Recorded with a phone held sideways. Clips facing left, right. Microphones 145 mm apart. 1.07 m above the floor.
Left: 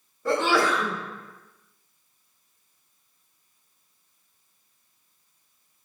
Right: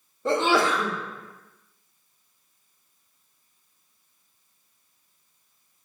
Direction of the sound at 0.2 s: 25° right (ahead or behind).